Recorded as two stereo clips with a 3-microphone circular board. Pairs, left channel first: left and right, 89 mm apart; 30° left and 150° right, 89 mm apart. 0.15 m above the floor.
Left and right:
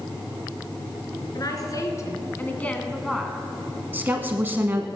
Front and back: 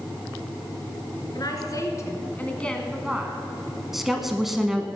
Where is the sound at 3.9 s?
70° right, 1.0 m.